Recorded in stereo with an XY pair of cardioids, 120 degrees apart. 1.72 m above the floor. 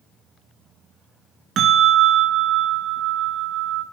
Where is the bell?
60° right, 1.8 m.